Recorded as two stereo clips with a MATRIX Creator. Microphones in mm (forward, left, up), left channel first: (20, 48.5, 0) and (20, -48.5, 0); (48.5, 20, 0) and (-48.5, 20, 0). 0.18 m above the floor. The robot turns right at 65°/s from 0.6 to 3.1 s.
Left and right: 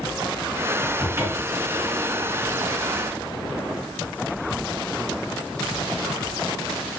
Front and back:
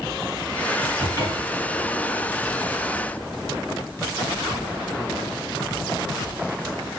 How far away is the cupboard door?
About 2 m.